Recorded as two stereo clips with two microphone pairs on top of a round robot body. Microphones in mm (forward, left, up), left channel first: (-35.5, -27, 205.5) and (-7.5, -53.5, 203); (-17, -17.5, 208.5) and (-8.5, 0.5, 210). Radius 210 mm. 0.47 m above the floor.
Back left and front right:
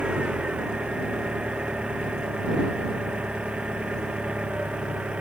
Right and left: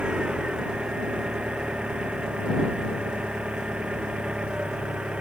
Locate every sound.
0.0 s an engine running: 20° left